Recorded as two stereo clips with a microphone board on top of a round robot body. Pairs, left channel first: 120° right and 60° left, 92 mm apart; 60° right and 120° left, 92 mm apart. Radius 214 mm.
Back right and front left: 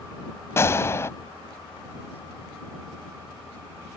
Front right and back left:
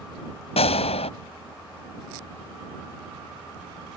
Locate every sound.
0.6 s a gunshot: 55° right